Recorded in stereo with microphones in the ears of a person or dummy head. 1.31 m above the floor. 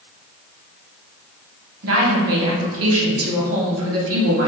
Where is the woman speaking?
70° right (ahead or behind), 1.0 m.